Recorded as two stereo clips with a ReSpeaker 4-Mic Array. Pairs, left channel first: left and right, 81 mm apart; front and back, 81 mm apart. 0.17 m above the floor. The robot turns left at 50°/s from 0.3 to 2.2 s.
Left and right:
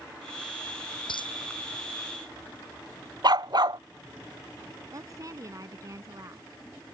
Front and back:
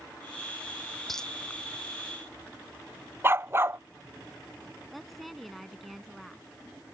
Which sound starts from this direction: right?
A woman speaking, at 4.9 s.